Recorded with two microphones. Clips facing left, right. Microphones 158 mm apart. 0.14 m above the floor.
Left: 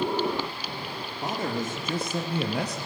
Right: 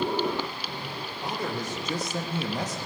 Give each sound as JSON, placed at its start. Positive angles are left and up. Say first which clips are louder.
{"t": 1.2, "sound": "a man speaking", "louder": "left 3 dB", "side_deg": 45, "distance_m": 3.0}